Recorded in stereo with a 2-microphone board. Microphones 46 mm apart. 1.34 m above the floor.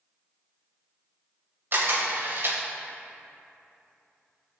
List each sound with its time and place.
1.7 s a camera shutter: 55° right (ahead or behind), 2.5 m